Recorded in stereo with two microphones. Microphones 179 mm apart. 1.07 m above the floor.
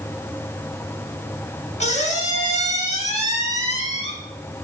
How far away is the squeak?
About 1.5 m.